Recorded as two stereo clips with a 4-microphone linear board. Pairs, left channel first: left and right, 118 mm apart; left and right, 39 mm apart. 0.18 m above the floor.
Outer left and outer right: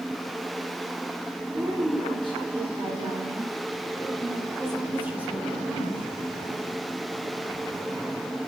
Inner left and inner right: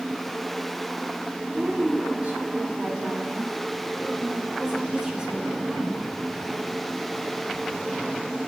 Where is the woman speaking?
50° right (ahead or behind), 4 m; by 6.1 s centre (ahead or behind), 2 m.